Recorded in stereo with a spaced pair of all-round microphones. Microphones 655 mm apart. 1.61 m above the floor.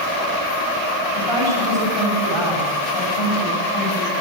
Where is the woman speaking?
45° left (ahead or behind), 10 m.